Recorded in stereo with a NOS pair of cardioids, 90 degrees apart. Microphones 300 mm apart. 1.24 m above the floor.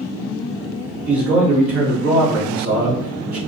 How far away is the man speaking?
About 2.5 m.